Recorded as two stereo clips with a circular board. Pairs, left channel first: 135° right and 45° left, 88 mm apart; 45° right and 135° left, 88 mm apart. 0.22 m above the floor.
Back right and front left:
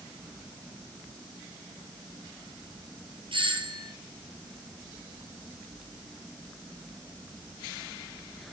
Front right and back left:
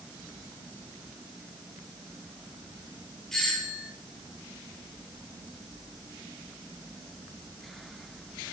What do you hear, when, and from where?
3.3 s a doorbell: 40° left, 5.5 m